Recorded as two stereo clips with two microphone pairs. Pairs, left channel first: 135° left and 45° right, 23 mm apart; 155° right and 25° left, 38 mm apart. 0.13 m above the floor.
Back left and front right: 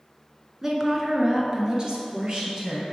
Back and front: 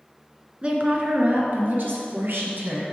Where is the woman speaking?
10° left, 1.2 m.